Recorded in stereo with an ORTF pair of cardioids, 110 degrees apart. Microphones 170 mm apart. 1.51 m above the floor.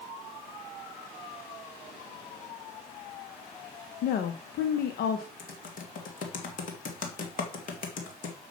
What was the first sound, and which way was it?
A woman speaking, 65° left.